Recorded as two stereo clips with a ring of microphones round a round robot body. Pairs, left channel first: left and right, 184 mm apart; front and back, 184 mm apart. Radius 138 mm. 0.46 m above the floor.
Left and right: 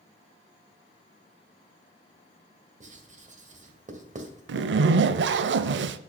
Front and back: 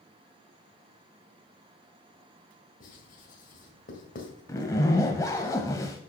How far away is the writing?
About 1.9 m.